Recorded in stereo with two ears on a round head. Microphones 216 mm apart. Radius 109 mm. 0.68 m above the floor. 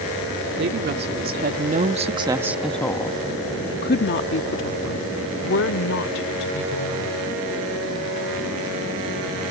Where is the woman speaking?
50° right (ahead or behind); by 7.2 s 60° left (ahead or behind).